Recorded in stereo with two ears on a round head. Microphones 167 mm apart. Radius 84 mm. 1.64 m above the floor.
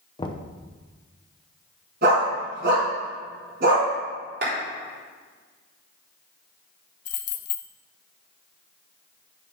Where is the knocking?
25° left (ahead or behind), 0.8 m.